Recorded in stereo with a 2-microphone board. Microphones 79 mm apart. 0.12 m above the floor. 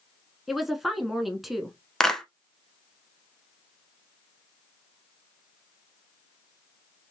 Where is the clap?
5° left (ahead or behind), 0.9 m.